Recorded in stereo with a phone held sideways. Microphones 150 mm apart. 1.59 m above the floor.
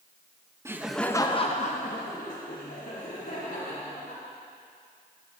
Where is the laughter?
20° right (ahead or behind), 0.6 m; by 4.2 s 80° left, 2.5 m.